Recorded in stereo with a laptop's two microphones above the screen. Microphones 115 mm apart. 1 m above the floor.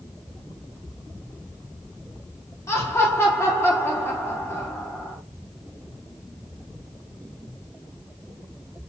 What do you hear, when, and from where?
2.7 s laughter: 25° left (ahead or behind), 0.8 m